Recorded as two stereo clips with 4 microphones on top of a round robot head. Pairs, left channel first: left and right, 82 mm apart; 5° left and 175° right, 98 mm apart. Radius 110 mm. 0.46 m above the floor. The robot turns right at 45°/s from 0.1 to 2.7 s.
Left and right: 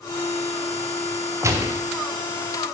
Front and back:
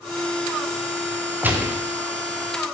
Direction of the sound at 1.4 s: 115° right.